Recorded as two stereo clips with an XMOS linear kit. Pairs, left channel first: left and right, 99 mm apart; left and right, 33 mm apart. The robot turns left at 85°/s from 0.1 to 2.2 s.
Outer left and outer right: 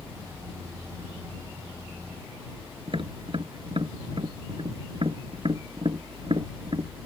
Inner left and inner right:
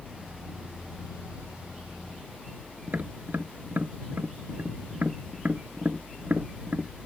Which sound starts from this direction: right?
Tapping, at 2.9 s.